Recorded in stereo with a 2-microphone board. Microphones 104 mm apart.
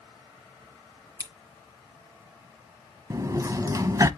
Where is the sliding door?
30° right (ahead or behind), 0.8 m.